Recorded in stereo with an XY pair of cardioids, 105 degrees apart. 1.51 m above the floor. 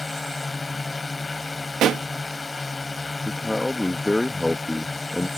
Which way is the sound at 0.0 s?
20° left.